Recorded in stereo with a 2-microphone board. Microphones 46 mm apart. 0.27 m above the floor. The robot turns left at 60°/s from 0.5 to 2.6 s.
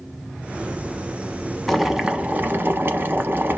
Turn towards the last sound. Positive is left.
turn(degrees=-50)